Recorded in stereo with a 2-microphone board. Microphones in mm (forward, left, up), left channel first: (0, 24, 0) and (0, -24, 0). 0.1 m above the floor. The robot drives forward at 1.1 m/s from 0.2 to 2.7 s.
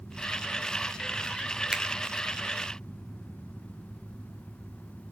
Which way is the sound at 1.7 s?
10° right (ahead or behind).